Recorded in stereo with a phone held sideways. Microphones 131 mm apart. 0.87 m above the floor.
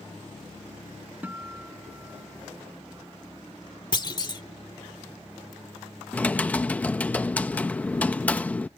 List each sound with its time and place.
1.2 s a guitar: 15° right (ahead or behind)
3.9 s a clunk: 35° left (ahead or behind)
6.1 s typing on a keyboard: 10° left (ahead or behind)